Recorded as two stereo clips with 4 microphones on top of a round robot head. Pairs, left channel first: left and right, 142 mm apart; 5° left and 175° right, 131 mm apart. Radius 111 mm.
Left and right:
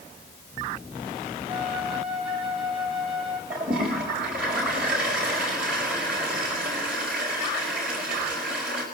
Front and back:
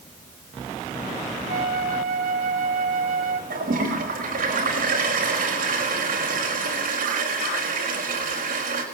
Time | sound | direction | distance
1.5 | a flute | 175° right | 2.5 m
3.5 | a toilet flushing | 175° right | 5 m